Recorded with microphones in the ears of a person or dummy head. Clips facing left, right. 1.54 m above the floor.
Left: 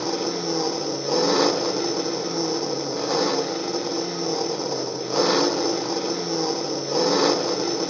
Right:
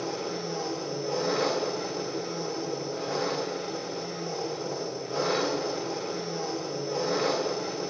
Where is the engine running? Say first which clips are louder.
Left 7 dB; 70° left (ahead or behind), 0.7 m.